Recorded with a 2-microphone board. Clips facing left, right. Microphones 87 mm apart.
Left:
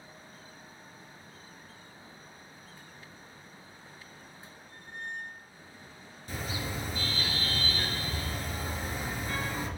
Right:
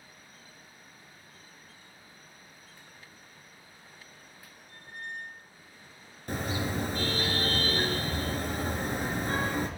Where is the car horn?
55° right (ahead or behind), 3.5 m.